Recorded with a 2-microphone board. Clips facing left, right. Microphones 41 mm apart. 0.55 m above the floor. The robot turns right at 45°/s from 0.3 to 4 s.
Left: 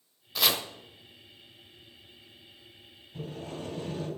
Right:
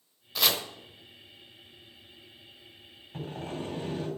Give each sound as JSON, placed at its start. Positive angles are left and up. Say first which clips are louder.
{"t": 0.3, "sound": "chopping", "louder": "even", "side_deg": 0, "distance_m": 0.7}
{"t": 3.1, "sound": "sawing", "louder": "right 2 dB", "azimuth_deg": -55, "distance_m": 3.0}